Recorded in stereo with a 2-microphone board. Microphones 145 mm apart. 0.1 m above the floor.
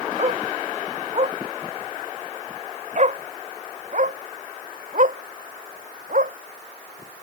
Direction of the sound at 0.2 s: 40° right (ahead or behind).